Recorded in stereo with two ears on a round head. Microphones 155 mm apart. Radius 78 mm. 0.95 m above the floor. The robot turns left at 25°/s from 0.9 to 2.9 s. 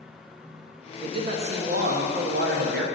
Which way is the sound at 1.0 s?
35° right.